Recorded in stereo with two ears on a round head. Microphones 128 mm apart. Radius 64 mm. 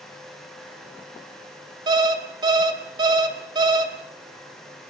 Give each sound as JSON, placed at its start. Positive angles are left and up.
{"t": 1.9, "sound": "an alarm clock", "side_deg": -30, "distance_m": 3.0}